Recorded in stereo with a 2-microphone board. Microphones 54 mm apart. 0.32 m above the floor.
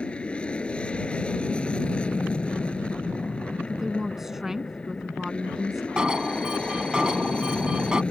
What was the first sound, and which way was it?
An aircraft, 20° left (ahead or behind).